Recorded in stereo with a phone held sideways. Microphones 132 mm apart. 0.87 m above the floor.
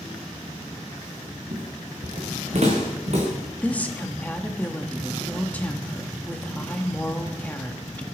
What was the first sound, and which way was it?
Footsteps, 60° right (ahead or behind).